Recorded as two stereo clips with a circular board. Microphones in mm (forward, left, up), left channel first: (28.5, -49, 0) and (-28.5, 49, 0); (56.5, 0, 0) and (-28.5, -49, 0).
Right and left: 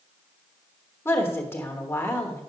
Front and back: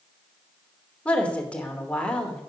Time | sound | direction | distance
1.1 | a woman speaking | 30° right | 1.0 m